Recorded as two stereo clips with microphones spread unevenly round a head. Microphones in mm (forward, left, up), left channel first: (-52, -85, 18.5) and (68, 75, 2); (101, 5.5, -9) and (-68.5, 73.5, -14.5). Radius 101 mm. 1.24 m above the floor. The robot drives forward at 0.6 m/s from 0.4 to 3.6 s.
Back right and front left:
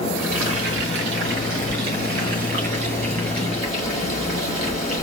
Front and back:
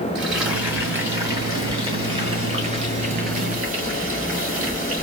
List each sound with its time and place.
0.1 s frying: 75° left, 2.5 m; by 5.0 s 120° left, 2.5 m